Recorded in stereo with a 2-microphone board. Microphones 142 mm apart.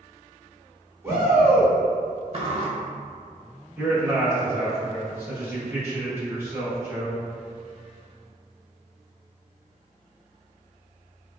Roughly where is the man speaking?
Centre.